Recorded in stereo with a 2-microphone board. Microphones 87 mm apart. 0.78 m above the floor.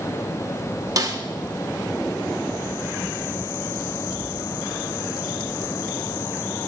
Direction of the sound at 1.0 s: 45° right (ahead or behind).